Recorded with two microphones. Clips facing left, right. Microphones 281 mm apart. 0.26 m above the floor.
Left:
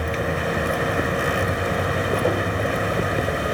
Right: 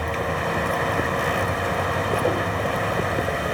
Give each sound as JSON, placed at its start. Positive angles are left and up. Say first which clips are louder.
{"t": 0.0, "sound": "a vehicle", "louder": "left 2 dB", "side_deg": 15}